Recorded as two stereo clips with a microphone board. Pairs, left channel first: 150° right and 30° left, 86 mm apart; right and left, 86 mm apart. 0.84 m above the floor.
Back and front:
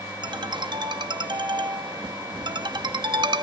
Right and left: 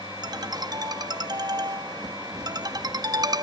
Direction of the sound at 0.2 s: 55° left.